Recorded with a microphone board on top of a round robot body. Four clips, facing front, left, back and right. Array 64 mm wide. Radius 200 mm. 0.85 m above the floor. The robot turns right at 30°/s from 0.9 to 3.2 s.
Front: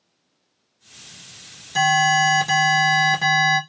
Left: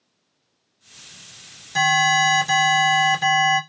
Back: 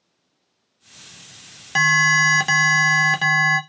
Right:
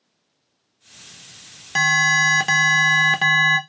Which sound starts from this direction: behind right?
An alarm, at 1.8 s.